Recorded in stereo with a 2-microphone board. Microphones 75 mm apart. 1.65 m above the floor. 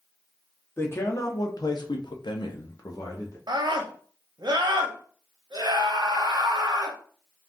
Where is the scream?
75° right (ahead or behind), 0.8 m.